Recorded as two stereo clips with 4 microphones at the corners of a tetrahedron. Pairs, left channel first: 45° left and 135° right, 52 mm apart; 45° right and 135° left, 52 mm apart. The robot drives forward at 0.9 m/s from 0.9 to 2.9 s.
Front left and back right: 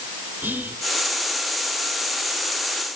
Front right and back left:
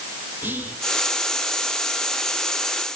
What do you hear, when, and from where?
0.4 s whispering: straight behind, 3 m